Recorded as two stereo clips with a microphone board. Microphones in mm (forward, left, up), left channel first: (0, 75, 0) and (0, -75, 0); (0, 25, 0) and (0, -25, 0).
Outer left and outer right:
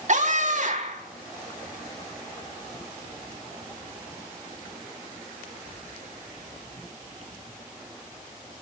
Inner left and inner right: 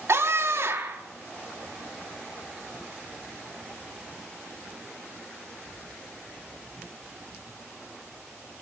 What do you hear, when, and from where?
0.1 s a scream: 55° right (ahead or behind), 4.5 m